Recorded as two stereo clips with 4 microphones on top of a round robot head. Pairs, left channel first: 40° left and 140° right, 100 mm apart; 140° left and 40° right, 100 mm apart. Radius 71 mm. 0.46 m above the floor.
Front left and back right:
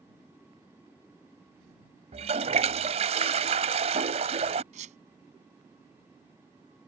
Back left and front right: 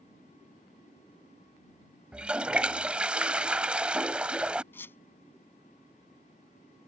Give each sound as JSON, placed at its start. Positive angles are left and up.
{"t": 2.1, "sound": "a toilet flushing", "azimuth_deg": -120}
{"t": 4.7, "sound": "a squeak", "azimuth_deg": -150}